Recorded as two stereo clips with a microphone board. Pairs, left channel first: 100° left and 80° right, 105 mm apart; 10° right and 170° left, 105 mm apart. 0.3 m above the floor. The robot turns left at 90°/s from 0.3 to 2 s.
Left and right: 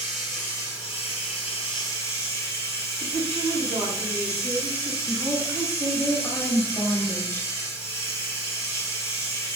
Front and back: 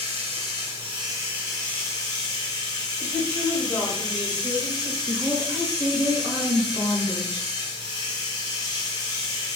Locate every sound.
0.0 s running water: 175° right, 1.3 m; by 9.6 s 35° left, 1.3 m
3.0 s a woman speaking: 85° right, 2.0 m
5.1 s a woman speaking: 125° left, 1.0 m